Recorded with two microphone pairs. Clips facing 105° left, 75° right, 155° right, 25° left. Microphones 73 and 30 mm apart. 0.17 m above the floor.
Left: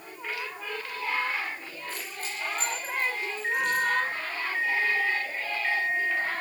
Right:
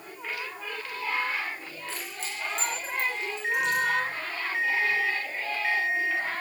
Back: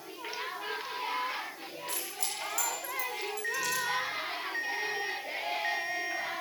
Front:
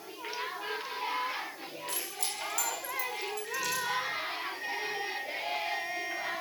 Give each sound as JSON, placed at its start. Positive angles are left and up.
{"t": 1.9, "sound": "keys jangling", "azimuth_deg": -70, "distance_m": 10.0}
{"t": 3.4, "sound": "an alarm clock", "azimuth_deg": -150, "distance_m": 5.5}